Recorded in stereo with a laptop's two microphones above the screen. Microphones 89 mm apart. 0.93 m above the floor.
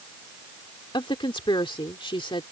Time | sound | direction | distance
0.9 | a woman speaking | 70° left (ahead or behind) | ?